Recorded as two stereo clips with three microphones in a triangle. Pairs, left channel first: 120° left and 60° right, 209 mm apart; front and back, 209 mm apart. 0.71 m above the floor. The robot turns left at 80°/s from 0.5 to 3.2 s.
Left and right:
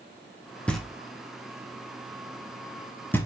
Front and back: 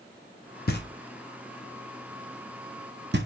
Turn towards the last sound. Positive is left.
turn(degrees=-165)